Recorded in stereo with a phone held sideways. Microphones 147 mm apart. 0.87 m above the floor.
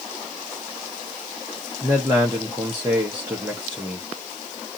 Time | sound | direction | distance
1.8 | a man speaking | 15° right (ahead or behind) | 0.9 m